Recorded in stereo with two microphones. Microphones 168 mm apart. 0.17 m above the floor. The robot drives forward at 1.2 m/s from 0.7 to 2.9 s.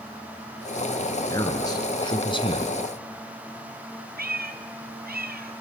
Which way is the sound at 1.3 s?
20° left (ahead or behind).